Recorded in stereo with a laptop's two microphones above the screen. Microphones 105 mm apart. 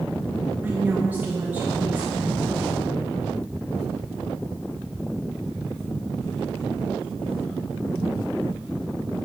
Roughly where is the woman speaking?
Centre.